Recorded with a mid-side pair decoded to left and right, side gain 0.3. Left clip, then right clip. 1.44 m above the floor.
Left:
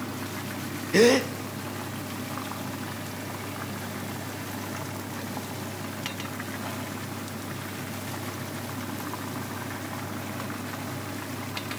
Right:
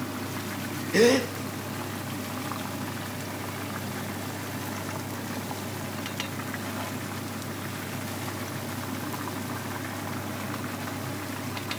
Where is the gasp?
35° left, 0.6 m.